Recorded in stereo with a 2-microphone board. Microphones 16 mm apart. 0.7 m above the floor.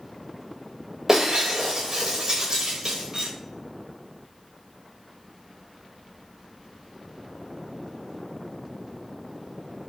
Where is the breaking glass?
25° right (ahead or behind), 7 m.